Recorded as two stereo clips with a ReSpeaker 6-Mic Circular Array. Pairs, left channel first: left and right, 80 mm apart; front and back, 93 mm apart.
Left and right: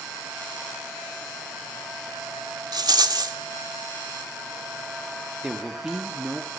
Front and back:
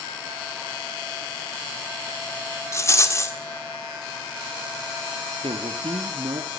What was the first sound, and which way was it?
A rattle, 60° right.